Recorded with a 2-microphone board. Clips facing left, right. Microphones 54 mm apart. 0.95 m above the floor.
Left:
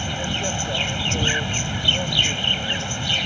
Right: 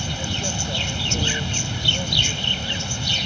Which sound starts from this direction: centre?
An insect, at 0.0 s.